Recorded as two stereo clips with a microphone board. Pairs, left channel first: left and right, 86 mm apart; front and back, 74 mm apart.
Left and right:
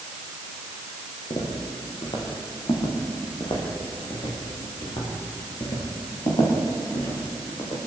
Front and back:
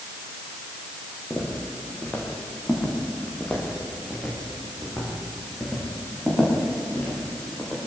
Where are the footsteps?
70° left, 7 m; by 7.8 s 85° left, 11 m.